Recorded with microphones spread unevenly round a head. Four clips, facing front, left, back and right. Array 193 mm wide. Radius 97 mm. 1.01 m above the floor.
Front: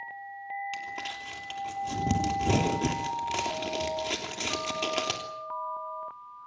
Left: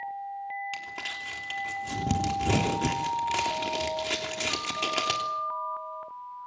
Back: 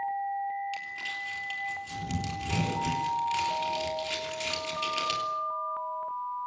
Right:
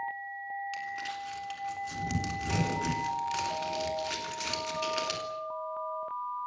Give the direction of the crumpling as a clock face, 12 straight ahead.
11 o'clock.